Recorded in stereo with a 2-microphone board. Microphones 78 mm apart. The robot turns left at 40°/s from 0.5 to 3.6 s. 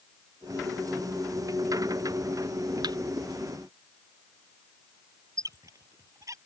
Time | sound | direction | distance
2.8 | a thud | 60° right (ahead or behind) | ?
5.4 | a squeak | 45° right (ahead or behind) | ?